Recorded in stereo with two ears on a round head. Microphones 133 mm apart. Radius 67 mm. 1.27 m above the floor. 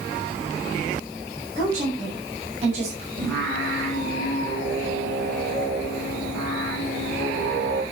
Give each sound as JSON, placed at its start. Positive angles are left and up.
{"t": 1.6, "sound": "a woman speaking", "side_deg": -55, "distance_m": 7.5}
{"t": 3.2, "sound": "singing", "side_deg": -80, "distance_m": 6.5}